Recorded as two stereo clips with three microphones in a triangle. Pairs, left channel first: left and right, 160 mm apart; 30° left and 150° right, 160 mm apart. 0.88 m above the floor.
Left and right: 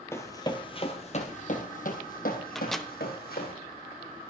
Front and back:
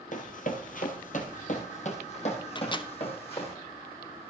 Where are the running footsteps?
20° left, 1.4 m; by 3.5 s 85° left, 3 m.